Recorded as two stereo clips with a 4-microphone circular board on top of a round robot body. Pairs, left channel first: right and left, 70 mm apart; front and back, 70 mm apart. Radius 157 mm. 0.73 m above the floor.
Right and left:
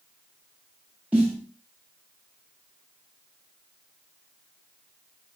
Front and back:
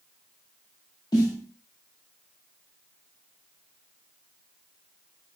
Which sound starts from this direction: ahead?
A snare drum, at 1.1 s.